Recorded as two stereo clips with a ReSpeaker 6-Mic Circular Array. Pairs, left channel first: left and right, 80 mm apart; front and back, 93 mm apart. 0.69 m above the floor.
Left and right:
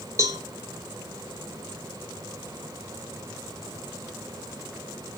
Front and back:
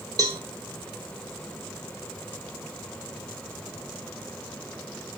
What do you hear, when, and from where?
0.2 s a cowbell: 135° right, 2.5 m